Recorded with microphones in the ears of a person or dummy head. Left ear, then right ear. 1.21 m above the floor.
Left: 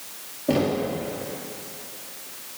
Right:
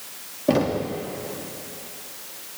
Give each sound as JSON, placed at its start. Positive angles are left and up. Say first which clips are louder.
{"t": 0.5, "sound": "knocking", "louder": "right 1 dB", "side_deg": -35, "distance_m": 1.5}